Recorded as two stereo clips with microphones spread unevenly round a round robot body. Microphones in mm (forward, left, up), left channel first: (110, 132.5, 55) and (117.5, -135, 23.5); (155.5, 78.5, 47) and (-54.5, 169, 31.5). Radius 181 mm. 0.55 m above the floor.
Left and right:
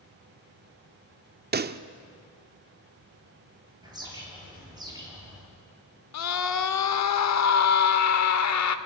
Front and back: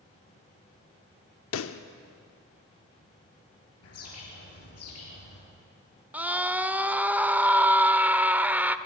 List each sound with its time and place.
1.5 s a pop: 45° right, 0.9 m
3.8 s a bird: 15° right, 9 m
6.1 s a scream: 75° left, 1.5 m